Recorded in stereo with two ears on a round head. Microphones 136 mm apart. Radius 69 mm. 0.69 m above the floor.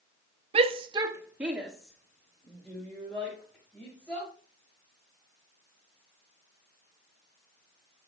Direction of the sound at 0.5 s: 40° right (ahead or behind).